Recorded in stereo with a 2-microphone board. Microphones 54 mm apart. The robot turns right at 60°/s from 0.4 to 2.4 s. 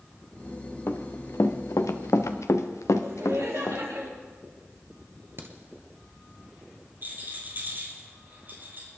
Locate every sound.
0.9 s running footsteps: 60° left (ahead or behind), 1.4 m; by 3.8 s 65° left (ahead or behind), 1.7 m
3.0 s laughter: 70° right (ahead or behind), 4 m
5.4 s a crack: 50° right (ahead or behind), 1.6 m
7.0 s a rattle: 40° right (ahead or behind), 4.5 m